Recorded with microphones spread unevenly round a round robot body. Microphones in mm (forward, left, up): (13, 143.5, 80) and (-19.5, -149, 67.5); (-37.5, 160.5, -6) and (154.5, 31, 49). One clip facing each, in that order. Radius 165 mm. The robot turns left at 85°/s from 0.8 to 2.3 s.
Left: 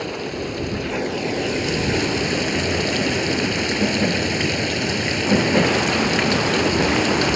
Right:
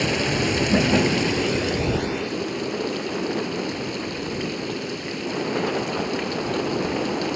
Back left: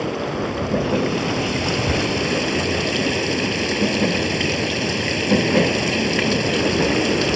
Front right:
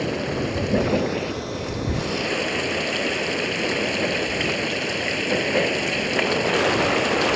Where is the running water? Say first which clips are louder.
Right 3 dB, back left 1 dB; 125° right; by 7.4 s 110° left.